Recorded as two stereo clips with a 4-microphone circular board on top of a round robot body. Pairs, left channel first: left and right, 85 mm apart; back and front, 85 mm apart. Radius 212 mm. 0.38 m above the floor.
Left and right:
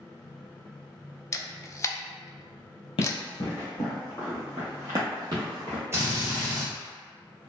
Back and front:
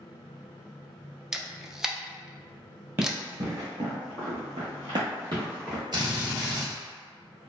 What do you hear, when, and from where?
1.3 s a camera shutter: 80° left, 0.6 m
3.0 s running footsteps: 70° left, 0.9 m; by 5.8 s 55° right, 1.2 m
5.9 s a drill: 30° right, 1.2 m